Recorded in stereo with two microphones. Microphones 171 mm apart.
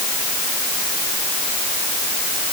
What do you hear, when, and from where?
Only background noise.